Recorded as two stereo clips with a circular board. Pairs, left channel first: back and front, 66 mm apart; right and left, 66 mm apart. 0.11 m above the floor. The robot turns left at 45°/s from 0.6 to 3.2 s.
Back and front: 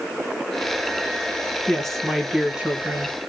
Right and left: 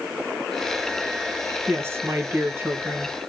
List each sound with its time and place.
1.7 s a woman speaking: 105° left, 1.6 m; by 3.2 s 40° left, 1.6 m